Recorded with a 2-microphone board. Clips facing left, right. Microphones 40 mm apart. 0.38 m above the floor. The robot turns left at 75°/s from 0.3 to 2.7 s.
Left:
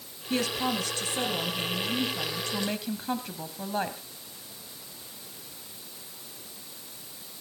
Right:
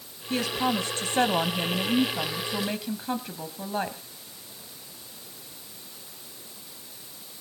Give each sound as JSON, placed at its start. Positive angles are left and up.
{"t": 0.3, "sound": "a woman speaking", "azimuth_deg": 5, "distance_m": 2.0}